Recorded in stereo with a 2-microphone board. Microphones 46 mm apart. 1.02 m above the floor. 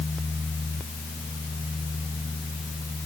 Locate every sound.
Only background noise.